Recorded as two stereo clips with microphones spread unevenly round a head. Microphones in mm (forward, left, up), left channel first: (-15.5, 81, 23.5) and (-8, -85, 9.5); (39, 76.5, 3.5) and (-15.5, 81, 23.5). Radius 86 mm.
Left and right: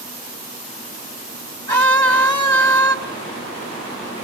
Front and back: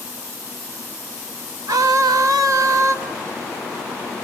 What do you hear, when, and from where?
1.7 s a scream: 160° left, 2 m